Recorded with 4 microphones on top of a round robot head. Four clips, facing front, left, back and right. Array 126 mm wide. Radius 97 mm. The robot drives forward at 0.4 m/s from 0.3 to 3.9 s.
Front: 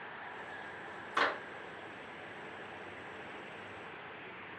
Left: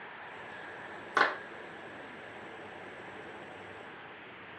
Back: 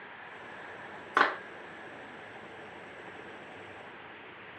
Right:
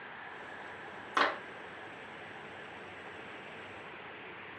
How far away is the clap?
About 1.3 m.